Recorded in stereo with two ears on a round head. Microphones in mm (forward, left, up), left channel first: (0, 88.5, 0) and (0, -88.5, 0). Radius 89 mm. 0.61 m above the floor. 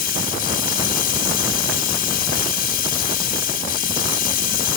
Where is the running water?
45° left (ahead or behind), 1.5 m.